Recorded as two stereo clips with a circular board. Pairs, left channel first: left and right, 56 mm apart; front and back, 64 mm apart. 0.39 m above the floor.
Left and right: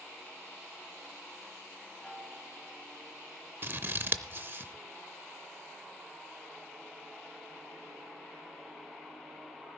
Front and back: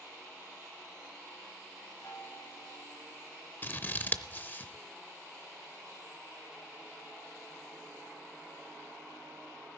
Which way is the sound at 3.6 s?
50° right.